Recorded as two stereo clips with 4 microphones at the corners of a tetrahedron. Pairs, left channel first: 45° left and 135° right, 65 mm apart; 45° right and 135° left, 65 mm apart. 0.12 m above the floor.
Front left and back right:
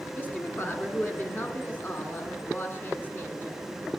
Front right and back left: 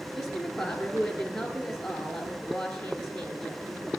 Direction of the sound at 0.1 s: 25° left.